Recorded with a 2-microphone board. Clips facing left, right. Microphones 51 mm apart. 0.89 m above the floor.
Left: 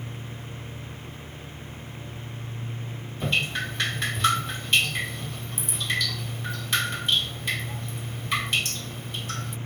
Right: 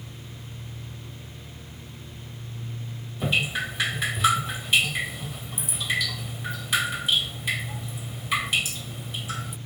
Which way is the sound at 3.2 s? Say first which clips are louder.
Right 1 dB; 5° right (ahead or behind).